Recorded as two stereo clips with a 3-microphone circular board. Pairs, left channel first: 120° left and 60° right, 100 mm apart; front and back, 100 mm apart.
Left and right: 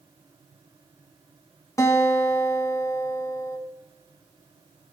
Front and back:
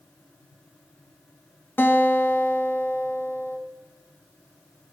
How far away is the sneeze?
I don't hear a sneeze.